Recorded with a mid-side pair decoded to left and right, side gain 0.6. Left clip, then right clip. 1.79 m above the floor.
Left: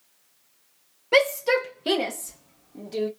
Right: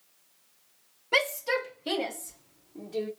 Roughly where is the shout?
Ahead left.